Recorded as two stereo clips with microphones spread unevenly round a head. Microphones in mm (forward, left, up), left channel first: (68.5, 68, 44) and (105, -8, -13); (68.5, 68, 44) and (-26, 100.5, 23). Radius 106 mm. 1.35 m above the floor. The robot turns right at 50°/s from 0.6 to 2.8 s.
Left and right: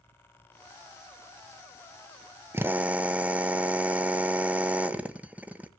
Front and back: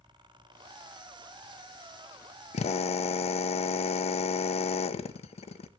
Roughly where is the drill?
Ahead.